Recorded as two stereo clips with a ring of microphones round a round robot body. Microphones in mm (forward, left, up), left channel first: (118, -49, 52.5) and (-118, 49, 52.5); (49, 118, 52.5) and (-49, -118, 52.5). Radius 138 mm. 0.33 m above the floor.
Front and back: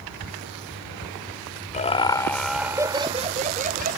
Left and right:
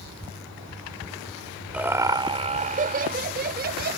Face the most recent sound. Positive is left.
turn(degrees=-155)